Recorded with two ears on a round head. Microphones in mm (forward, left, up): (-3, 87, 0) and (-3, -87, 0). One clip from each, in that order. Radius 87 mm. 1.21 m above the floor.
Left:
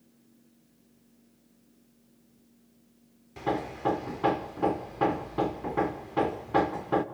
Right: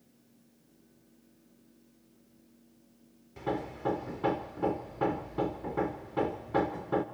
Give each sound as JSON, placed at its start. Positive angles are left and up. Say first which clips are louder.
{"t": 3.4, "sound": "hammering", "louder": "left 4 dB", "side_deg": 20, "distance_m": 0.9}